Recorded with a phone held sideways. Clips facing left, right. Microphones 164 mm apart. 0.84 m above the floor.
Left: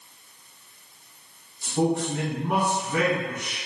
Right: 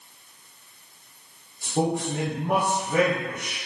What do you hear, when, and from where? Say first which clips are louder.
1.6 s a man speaking: left 1 dB; 75° right (ahead or behind), 1.7 m